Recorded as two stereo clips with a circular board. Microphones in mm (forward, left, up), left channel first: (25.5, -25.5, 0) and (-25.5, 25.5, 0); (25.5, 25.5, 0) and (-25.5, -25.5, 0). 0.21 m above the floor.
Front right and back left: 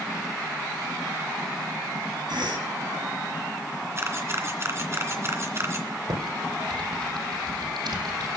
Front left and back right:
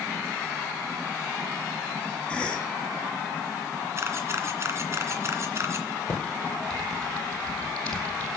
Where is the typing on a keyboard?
120° left, 5 m.